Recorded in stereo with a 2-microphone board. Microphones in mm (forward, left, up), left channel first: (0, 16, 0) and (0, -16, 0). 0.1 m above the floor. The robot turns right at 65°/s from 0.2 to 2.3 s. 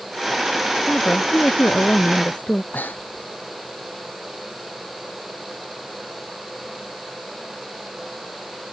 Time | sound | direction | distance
0.9 | a woman speaking | 40° left | ?
2.7 | breathing | 60° left (ahead or behind) | ?